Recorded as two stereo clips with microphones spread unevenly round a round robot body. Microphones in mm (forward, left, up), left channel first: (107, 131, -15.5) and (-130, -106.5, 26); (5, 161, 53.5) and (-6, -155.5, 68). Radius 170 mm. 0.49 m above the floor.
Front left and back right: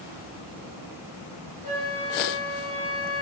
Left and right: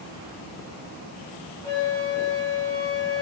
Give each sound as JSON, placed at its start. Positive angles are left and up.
{"t": 1.6, "sound": "a flute", "azimuth_deg": 10, "distance_m": 4.0}